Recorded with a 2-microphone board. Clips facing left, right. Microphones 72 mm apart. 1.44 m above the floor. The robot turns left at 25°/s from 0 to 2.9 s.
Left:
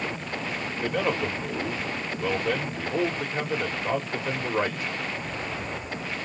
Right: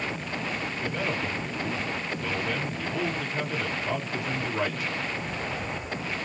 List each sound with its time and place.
0.7 s a man speaking: 95° left, 1.7 m; by 4.9 s 40° left, 1.7 m